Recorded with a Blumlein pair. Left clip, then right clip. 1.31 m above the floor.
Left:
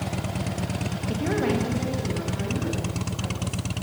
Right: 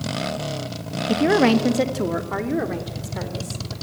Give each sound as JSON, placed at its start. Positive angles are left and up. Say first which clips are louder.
{"t": 1.1, "sound": "a woman speaking", "louder": "right 9 dB", "azimuth_deg": -25, "distance_m": 1.6}